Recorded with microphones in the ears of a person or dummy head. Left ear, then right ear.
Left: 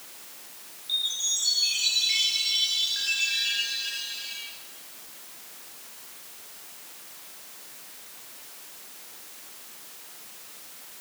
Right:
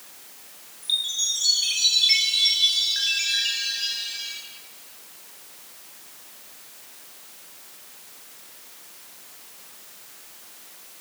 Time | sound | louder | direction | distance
0.8 | a chime | right 3 dB | 45° right (ahead or behind) | 5 m